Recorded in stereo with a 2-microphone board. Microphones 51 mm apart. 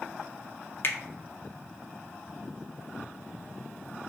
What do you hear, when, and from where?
0.8 s a finger snap: 45° left (ahead or behind), 0.6 m